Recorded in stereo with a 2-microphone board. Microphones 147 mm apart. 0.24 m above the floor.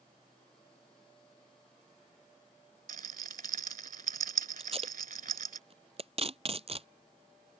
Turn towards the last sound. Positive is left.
turn(degrees=-45)  # may be behind; listen again after turning